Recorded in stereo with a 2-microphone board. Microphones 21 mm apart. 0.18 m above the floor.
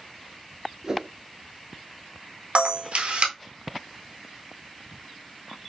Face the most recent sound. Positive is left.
turn(degrees=-75)  # may be behind; listen again after turning